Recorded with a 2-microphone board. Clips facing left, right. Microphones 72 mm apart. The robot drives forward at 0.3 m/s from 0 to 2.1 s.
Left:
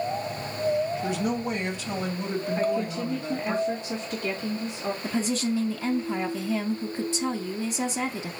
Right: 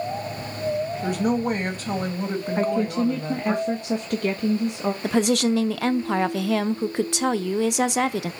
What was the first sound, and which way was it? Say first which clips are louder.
A woman speaking: right 5 dB; 50° right (ahead or behind).